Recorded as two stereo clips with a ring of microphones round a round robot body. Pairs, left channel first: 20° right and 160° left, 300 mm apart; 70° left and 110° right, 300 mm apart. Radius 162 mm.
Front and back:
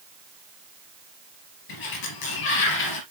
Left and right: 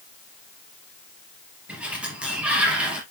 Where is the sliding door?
25° right, 3 m.